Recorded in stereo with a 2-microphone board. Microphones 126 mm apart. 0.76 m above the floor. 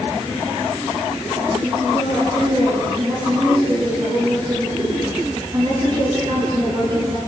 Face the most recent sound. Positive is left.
turn(degrees=-40)  # may be behind; listen again after turning